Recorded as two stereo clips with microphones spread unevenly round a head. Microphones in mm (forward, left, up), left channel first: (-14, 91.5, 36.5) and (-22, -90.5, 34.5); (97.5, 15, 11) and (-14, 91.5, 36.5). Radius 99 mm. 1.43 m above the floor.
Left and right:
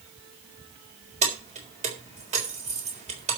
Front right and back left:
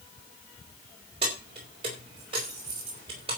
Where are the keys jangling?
150° right, 4 m.